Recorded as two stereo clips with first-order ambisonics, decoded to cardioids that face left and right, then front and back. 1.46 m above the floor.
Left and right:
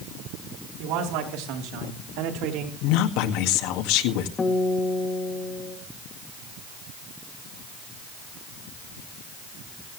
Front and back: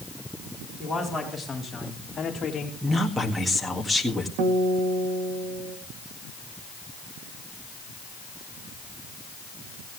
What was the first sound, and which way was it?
A man speaking, 100° right.